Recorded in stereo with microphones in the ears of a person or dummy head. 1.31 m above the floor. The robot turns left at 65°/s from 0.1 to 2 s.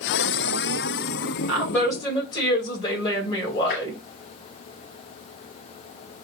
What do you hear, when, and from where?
1.5 s a woman speaking: 170° right, 2.0 m; by 4.0 s 155° left, 2.0 m
3.7 s tapping: 55° left (ahead or behind), 1.8 m